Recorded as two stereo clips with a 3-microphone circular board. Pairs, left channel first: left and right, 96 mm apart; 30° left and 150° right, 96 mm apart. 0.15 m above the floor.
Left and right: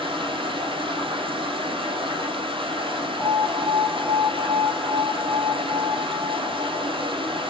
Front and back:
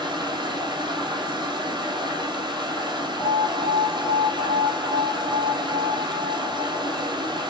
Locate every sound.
0.0 s running water: 115° right, 3.5 m
3.2 s an alarm: 20° left, 3 m